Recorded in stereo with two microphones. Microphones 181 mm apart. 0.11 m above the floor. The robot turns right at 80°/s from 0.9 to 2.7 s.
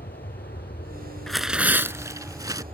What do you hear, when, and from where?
0.0 s an aircraft: 55° left (ahead or behind); by 2.7 s 35° right (ahead or behind)
1.3 s tearing paper: centre (ahead or behind); by 2.6 s 20° right (ahead or behind)